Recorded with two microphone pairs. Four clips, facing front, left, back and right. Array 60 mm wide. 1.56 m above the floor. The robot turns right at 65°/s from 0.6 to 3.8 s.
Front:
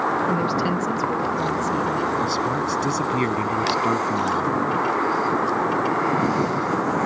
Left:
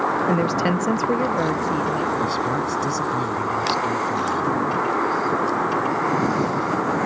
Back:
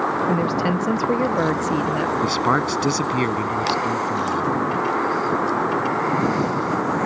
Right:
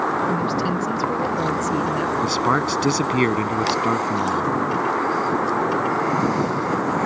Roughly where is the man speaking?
Behind.